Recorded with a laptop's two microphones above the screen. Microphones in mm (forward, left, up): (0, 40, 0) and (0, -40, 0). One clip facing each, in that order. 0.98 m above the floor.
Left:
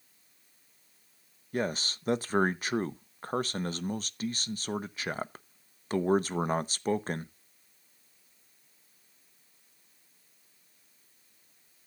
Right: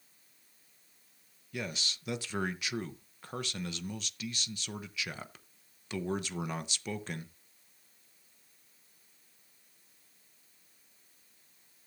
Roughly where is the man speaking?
Left.